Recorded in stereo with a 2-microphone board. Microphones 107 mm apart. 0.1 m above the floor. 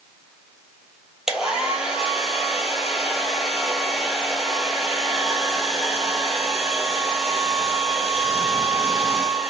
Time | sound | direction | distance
1.3 | a hair dryer | 5° right (ahead or behind) | 0.6 m